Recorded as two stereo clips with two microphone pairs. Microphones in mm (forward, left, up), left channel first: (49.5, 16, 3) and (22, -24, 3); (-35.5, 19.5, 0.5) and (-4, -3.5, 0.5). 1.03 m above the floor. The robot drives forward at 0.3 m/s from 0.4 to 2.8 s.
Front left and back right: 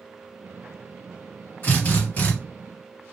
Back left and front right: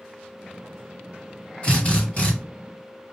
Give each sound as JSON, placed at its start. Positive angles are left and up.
{"t": 1.6, "sound": "a drill", "azimuth_deg": 90, "distance_m": 1.6}